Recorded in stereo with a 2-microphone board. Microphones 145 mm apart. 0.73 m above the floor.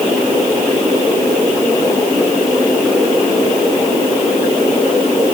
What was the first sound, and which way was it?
Only background noise.